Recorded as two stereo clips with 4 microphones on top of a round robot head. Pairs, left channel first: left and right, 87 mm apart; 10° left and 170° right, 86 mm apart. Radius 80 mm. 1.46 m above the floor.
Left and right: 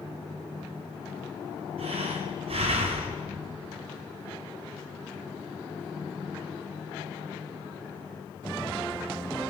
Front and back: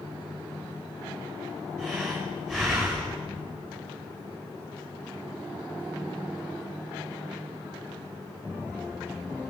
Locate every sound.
1.8 s breathing: 75° right, 4 m